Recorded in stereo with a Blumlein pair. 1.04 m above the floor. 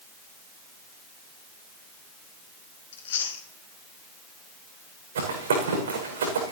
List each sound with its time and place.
2.9 s chewing: 60° left, 3 m
5.2 s running footsteps: 65° right, 6.5 m